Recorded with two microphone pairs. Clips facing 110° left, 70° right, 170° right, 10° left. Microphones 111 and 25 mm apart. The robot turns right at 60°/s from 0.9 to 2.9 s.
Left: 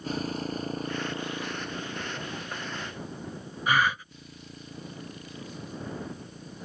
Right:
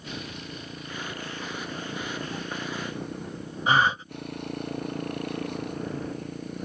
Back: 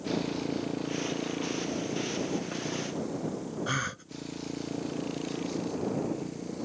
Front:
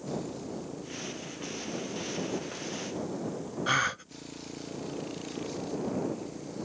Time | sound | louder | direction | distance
0.0 | a motorcycle | left 7 dB, back 5 dB | 155° left | ?
3.7 | a gasp | right 3 dB, front 6 dB | 35° right | ?